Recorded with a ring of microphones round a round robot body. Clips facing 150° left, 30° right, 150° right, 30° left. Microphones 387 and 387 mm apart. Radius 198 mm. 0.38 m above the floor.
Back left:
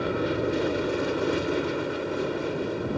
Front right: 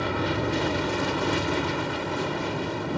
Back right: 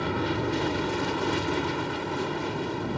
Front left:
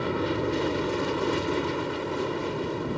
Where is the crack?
I don't hear a crack.